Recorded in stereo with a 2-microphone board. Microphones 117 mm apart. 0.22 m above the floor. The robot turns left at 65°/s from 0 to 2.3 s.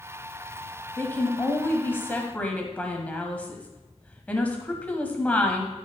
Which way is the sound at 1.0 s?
15° left (ahead or behind).